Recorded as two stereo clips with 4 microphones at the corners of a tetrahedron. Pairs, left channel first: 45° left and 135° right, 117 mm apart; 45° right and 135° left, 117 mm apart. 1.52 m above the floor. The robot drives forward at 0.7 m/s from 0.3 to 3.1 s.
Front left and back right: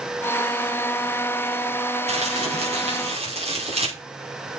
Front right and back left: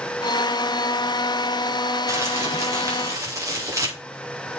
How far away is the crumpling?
About 5.5 m.